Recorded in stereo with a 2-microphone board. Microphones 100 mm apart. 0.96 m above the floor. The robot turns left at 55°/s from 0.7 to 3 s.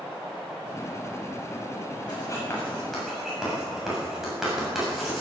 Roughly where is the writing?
Left.